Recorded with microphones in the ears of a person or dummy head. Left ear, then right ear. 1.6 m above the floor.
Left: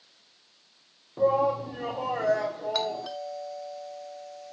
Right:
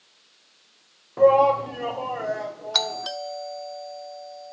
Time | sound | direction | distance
1.2 | a shout | 35° right (ahead or behind) | 0.6 m
2.7 | a doorbell | 40° right (ahead or behind) | 0.8 m